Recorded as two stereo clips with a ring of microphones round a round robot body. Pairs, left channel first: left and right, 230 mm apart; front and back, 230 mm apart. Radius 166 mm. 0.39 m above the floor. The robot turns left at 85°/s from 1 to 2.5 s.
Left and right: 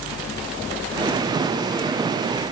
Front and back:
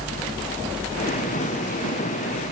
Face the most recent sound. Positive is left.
No sound to turn to.